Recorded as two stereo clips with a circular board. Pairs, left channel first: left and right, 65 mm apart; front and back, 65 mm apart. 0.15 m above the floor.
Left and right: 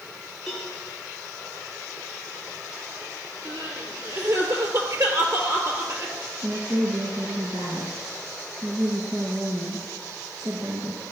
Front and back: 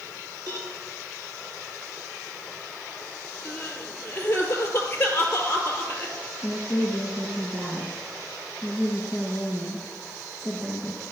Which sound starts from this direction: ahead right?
Crying, at 3.5 s.